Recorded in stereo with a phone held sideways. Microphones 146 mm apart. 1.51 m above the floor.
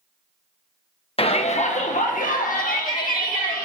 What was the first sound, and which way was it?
A shout, 40° left (ahead or behind).